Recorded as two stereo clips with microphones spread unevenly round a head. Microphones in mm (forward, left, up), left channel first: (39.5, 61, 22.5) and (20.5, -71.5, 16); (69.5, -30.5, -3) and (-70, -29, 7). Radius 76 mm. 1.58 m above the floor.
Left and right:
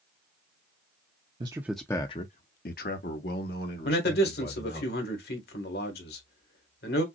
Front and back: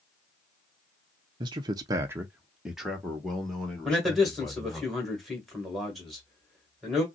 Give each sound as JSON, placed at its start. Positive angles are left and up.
{"t": 1.4, "sound": "a man speaking", "azimuth_deg": -145, "distance_m": 0.5}
{"t": 3.9, "sound": "a man speaking", "azimuth_deg": 90, "distance_m": 2.0}